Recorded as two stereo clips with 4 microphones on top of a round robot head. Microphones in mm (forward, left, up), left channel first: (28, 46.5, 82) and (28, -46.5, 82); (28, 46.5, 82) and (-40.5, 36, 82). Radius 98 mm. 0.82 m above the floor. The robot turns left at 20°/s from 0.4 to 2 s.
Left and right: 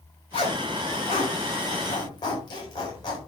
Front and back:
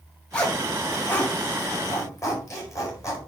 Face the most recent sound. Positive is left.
turn(degrees=50)